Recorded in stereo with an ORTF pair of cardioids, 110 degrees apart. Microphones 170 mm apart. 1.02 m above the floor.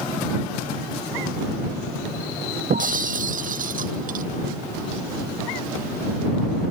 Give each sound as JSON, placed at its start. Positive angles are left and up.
{"t": 2.7, "sound": "breaking glass", "azimuth_deg": -50}